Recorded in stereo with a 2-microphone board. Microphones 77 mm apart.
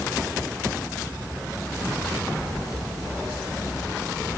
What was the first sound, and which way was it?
Only background noise.